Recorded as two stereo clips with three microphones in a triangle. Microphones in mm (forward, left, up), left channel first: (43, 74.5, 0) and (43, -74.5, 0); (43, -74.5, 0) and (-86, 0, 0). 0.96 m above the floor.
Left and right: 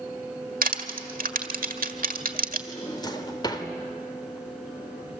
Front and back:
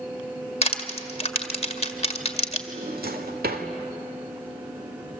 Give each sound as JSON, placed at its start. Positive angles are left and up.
{"t": 0.6, "sound": "crushing", "azimuth_deg": -75, "distance_m": 1.7}
{"t": 2.7, "sound": "a drawer", "azimuth_deg": 150, "distance_m": 1.8}